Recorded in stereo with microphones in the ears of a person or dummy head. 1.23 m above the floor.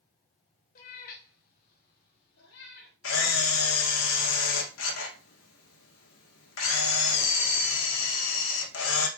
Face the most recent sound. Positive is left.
turn(degrees=75)  # may be behind; listen again after turning